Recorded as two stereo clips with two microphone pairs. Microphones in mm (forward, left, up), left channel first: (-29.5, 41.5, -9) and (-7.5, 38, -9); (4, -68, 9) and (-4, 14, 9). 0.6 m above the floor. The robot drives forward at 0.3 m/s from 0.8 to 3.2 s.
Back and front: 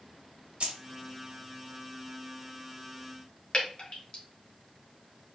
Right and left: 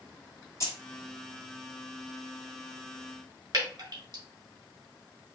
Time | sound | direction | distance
0.6 | keys jangling | 35° right | 1.5 m
3.5 | dripping | 135° left | 1.9 m